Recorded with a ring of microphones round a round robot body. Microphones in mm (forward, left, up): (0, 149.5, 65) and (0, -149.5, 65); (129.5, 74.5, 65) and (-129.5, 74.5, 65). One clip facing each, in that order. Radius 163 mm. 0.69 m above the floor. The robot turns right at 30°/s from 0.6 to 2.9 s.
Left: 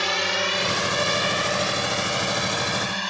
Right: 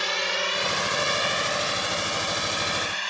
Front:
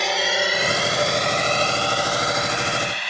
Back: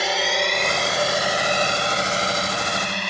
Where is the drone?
95° left; by 3.1 s 135° left.